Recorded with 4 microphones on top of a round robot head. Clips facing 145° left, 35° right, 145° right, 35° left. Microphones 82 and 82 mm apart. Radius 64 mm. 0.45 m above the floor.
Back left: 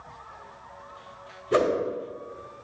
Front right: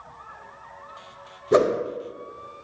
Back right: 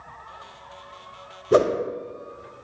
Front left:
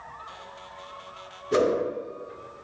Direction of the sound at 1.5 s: 105° right.